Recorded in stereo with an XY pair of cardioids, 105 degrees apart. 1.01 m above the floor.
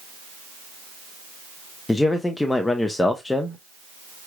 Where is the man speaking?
20° left, 0.7 m.